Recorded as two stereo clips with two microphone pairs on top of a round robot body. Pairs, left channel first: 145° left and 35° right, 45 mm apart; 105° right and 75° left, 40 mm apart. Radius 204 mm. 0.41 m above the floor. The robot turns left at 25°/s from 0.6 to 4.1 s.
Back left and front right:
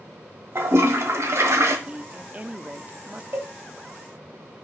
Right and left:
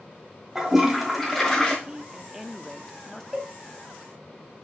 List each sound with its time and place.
0.6 s a toilet flushing: 10° right, 1.4 m; by 1.8 s 40° right, 1.4 m
1.9 s a woman speaking: straight ahead, 0.9 m; by 3.2 s 35° right, 0.9 m
3.3 s a cowbell: 15° right, 1.8 m; by 3.5 s 20° right, 1.8 m